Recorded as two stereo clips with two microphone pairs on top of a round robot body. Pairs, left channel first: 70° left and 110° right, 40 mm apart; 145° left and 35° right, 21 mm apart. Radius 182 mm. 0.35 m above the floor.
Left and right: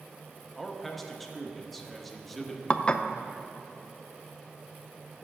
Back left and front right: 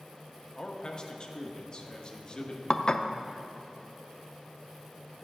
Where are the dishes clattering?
115° left, 0.6 m.